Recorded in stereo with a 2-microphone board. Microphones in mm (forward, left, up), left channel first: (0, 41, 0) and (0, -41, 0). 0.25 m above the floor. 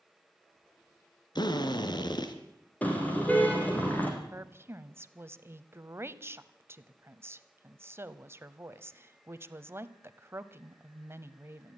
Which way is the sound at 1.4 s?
60° left (ahead or behind).